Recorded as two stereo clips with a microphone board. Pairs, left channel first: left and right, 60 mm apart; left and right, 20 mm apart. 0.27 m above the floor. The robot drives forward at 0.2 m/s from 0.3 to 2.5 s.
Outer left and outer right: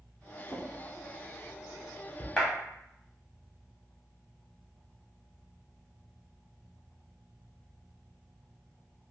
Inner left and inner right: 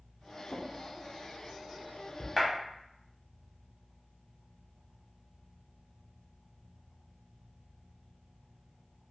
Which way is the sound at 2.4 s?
15° left (ahead or behind).